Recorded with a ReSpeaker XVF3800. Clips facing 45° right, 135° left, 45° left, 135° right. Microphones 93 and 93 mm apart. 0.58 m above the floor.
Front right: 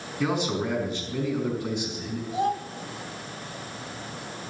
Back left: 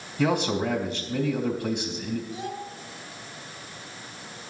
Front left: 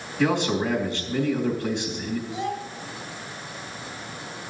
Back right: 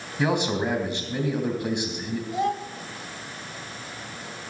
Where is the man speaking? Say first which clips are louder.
Back left 2 dB, front left 1 dB; 155° left, 3 m.